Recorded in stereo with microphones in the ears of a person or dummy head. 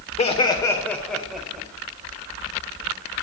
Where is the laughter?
35° left (ahead or behind), 1.2 m; by 1.7 s 5° right (ahead or behind), 2 m.